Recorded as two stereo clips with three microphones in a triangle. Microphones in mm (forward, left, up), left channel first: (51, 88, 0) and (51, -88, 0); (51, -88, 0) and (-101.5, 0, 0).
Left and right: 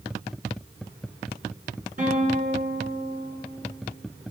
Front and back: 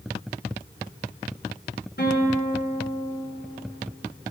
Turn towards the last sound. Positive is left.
turn(degrees=-45)